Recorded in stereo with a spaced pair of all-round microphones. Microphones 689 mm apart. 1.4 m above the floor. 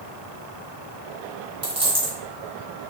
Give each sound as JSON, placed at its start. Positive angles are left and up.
{"t": 1.6, "sound": "a dropped coin", "side_deg": -10, "distance_m": 1.8}